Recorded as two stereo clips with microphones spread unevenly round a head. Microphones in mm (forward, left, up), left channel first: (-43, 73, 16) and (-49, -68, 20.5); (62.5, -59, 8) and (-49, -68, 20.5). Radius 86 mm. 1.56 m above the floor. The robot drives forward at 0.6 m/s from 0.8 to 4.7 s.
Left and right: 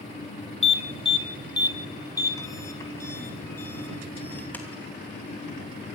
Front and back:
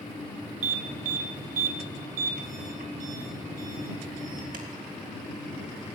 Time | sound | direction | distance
0.6 | an alarm | 135° left | 1.2 m